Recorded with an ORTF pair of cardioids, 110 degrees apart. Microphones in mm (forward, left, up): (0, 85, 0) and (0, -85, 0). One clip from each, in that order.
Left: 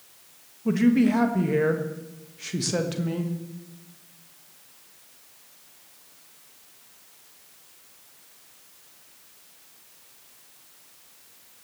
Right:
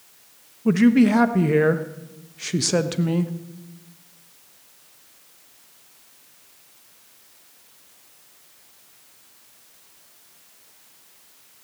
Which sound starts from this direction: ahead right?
A man speaking, at 0.7 s.